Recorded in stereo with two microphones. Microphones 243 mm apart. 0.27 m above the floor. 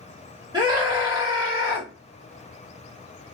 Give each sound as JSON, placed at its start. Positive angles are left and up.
{"t": 0.5, "sound": "a scream", "side_deg": -15, "distance_m": 2.0}